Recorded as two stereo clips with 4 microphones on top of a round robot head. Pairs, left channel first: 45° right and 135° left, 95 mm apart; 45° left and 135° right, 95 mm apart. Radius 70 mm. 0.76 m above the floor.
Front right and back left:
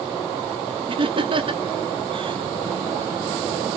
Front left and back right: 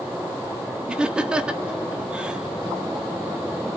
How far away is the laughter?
About 2 m.